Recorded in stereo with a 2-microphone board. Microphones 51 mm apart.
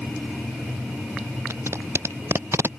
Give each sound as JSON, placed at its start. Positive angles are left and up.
{"t": 1.5, "sound": "tape being pulled", "side_deg": -60}